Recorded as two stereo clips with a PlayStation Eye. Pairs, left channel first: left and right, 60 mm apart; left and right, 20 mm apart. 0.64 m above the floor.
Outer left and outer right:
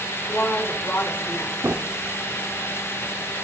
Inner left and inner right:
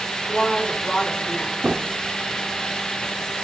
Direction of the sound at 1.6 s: 50° right (ahead or behind).